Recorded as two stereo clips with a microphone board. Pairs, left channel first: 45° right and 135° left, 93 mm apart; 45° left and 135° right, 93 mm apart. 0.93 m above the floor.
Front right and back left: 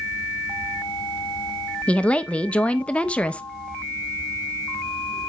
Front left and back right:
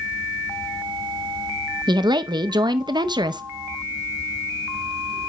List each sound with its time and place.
1.9 s a woman speaking: 120° right, 0.5 m